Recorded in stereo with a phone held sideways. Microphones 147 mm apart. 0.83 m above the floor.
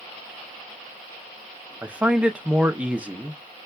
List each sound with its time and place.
1.8 s a man speaking: 10° right (ahead or behind), 0.6 m